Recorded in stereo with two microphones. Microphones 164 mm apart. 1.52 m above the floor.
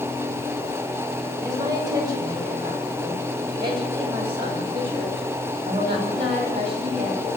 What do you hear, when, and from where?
1.4 s a woman speaking: 25° right (ahead or behind), 8.5 m; by 7.3 s 35° right (ahead or behind), 11 m